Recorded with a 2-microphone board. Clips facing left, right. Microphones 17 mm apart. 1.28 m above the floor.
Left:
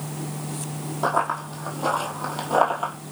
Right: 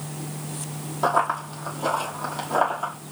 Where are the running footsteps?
10° right (ahead or behind), 1.8 m; by 2.9 s 20° left (ahead or behind), 1.4 m.